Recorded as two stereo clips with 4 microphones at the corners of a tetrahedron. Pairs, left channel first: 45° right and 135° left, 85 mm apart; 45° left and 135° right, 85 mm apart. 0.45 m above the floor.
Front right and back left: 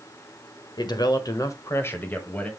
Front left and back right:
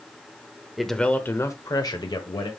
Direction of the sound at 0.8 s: 45° right.